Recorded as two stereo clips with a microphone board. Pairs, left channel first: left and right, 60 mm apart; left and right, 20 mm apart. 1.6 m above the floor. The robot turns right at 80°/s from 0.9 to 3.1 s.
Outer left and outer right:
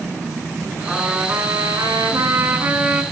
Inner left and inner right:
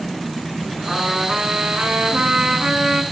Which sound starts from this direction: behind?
A trumpet, at 0.9 s.